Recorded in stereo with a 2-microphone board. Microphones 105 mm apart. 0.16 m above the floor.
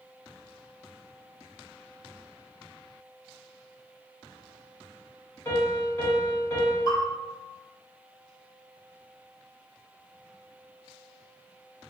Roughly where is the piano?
Left.